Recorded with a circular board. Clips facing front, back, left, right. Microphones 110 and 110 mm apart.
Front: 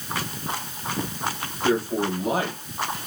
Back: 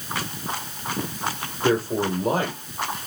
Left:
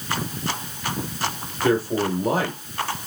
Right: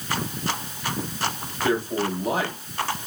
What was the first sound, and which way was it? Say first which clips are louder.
A man speaking: back 1 dB, left 3 dB; 135° left.